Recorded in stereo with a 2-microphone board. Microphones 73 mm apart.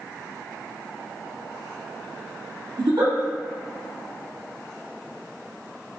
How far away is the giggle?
About 1.1 m.